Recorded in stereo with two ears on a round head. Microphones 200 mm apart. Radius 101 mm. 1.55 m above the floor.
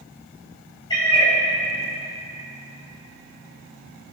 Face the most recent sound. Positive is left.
turn(degrees=20)  # may be behind; listen again after turning